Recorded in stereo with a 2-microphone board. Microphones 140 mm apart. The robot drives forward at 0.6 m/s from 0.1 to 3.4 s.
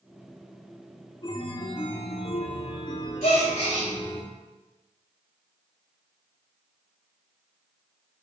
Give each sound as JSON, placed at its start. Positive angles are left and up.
{"t": 1.2, "sound": "a chime", "side_deg": 35, "distance_m": 0.9}
{"t": 3.2, "sound": "a gasp", "side_deg": 65, "distance_m": 2.5}